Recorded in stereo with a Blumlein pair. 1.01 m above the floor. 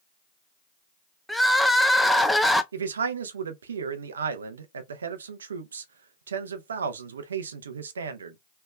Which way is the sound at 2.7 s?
70° right.